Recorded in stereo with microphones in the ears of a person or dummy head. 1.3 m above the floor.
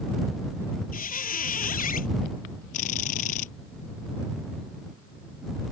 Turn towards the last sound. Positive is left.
turn(degrees=50)  # may be behind; listen again after turning